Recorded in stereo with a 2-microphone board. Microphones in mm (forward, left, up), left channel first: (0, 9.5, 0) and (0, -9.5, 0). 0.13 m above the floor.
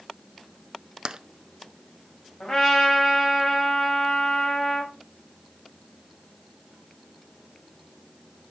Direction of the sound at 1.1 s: 40° right (ahead or behind).